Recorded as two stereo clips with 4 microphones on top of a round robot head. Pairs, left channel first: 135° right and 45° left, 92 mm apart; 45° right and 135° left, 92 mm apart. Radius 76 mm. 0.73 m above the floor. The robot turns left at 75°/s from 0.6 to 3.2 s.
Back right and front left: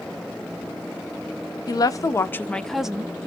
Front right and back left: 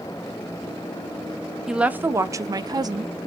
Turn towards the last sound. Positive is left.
turn(degrees=105)